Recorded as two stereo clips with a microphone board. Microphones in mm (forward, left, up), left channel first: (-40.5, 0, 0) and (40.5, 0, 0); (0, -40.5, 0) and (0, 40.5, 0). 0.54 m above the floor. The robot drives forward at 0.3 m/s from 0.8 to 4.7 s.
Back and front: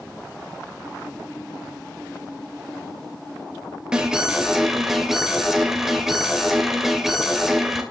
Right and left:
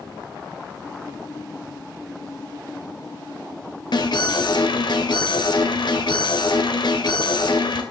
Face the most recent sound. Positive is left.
turn(degrees=-85)